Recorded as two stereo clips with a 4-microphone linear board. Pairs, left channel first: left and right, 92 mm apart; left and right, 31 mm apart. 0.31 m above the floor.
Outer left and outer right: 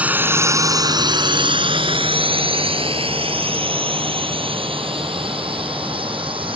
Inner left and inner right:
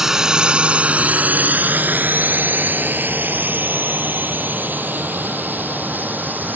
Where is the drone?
15° right (ahead or behind); by 6.6 s 70° right (ahead or behind).